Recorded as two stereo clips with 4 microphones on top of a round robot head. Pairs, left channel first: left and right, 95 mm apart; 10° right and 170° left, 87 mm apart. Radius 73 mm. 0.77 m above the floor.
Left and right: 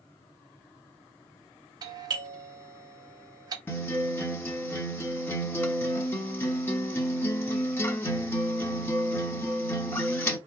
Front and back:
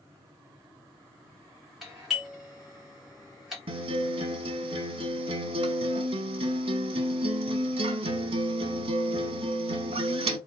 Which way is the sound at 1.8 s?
105° right.